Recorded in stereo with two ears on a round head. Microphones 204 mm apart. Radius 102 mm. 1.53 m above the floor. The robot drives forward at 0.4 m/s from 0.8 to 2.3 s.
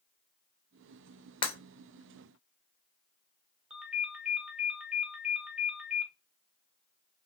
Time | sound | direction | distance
1.4 | breaking glass | 25° left (ahead or behind) | 0.7 m
3.7 | a ringtone | 5° right (ahead or behind) | 0.6 m